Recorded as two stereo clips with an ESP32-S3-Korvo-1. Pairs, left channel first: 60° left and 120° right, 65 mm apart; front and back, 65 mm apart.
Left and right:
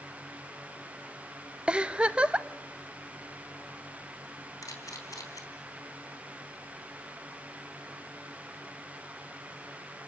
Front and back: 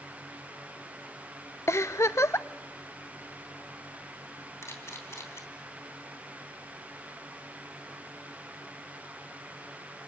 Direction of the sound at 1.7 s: 45° right.